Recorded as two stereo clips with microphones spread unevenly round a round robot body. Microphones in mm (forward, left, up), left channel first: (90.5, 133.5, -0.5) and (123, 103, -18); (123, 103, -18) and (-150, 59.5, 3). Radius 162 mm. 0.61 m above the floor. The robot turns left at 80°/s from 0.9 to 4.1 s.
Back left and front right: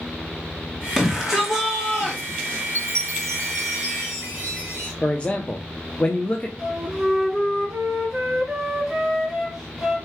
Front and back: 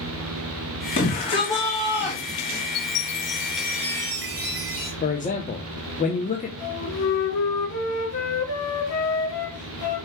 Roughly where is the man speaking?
Ahead left.